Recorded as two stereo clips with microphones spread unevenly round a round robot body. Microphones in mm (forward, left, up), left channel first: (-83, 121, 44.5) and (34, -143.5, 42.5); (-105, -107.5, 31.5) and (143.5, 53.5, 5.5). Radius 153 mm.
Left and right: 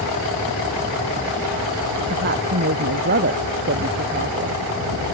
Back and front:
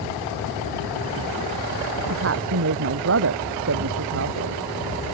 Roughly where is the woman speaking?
Ahead.